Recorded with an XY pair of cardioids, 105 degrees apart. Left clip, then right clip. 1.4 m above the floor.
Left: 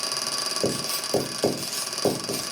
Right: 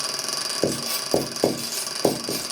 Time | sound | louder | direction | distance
0.6 | writing | right 2 dB | 45° right | 1.3 m